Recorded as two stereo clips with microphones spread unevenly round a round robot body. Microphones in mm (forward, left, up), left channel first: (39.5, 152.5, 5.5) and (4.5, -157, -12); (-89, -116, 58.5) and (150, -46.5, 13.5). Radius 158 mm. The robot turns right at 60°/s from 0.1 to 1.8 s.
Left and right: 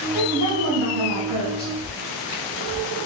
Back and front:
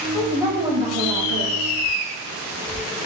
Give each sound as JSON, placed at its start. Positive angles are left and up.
{"t": 0.1, "sound": "a woman speaking", "azimuth_deg": -75, "distance_m": 2.5}